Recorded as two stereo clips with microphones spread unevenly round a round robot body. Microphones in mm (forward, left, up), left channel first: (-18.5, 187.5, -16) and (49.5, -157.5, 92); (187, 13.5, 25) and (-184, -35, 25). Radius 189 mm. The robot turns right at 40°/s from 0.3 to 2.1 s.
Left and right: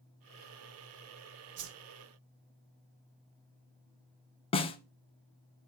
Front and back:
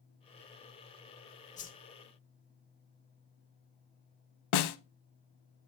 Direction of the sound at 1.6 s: 50° right.